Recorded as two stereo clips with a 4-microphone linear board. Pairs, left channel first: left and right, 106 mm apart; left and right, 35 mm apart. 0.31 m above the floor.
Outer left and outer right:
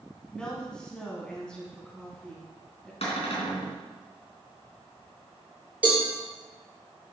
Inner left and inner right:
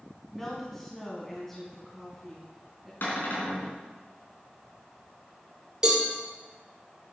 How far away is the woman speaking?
About 3.5 m.